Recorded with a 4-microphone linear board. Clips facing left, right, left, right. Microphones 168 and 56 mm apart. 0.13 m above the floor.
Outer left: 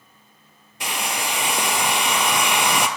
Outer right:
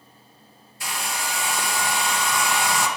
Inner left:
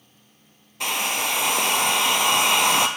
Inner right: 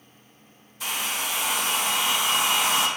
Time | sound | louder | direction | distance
0.8 | a hair dryer | outer left 3 dB, inner left 4 dB | 75° left (ahead or behind) | 0.6 m